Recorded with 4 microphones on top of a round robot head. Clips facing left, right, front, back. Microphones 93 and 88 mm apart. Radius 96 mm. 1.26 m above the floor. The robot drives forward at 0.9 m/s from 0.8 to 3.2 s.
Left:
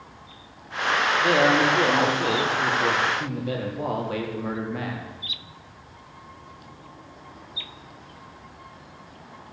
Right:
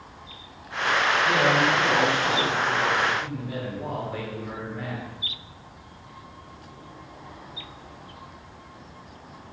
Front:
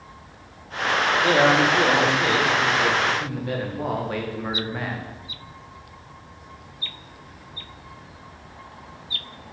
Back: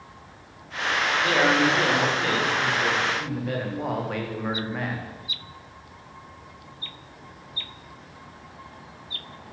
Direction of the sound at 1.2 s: 60° left.